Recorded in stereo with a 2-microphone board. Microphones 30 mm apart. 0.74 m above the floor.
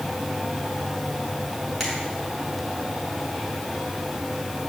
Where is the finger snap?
5° left (ahead or behind), 6 m.